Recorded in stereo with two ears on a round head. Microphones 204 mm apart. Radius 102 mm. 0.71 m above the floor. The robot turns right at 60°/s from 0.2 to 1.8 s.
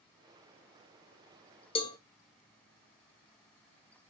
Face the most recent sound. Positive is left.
turn(degrees=20)  # may be behind; listen again after turning